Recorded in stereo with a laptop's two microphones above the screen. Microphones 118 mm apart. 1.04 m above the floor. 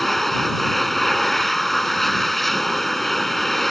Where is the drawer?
I don't hear a drawer.